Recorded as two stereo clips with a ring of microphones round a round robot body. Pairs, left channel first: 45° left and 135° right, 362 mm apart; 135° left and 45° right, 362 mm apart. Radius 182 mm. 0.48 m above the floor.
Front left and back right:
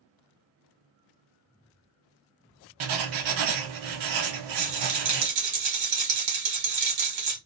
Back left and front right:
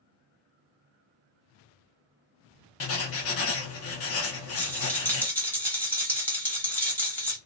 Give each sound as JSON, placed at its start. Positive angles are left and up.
{"t": 2.8, "sound": "writing", "azimuth_deg": -170, "distance_m": 0.8}
{"t": 4.6, "sound": "a rattle", "azimuth_deg": -140, "distance_m": 1.3}